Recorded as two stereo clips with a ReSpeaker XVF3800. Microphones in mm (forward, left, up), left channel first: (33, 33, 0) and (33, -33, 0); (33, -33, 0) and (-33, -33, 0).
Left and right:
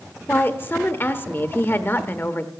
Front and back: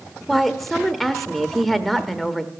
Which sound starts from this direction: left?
A woman speaking, at 0.3 s.